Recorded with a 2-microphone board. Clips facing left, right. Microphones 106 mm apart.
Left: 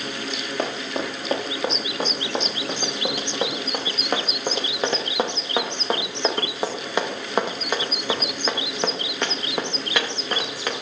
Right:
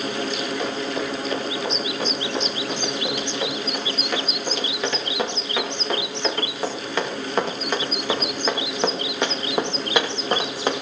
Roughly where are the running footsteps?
Left.